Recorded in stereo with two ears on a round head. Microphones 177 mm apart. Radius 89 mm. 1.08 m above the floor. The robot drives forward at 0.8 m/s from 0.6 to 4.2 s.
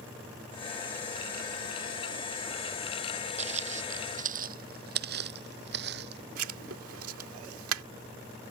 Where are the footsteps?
35° right (ahead or behind); by 6.2 s 55° right (ahead or behind).